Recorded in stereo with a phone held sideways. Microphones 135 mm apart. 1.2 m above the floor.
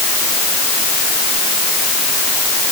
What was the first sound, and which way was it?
Only background noise.